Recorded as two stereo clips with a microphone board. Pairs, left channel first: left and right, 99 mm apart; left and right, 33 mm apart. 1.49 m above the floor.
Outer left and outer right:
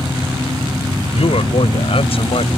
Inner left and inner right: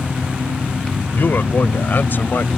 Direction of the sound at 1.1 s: 75° left (ahead or behind).